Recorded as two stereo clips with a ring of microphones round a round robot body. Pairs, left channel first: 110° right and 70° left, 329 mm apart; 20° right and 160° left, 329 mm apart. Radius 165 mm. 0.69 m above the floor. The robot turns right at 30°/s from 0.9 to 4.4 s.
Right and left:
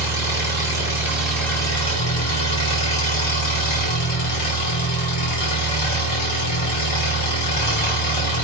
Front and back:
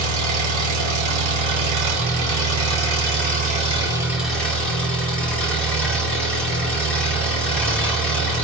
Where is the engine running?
145° left, 1.3 m; by 8.4 s 110° right, 1.3 m.